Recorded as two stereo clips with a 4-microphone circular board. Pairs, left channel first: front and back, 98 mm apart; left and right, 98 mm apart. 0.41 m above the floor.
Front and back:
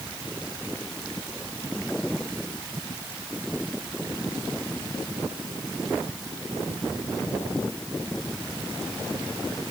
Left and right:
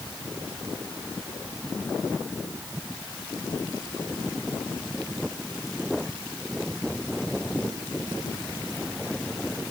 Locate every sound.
Only background noise.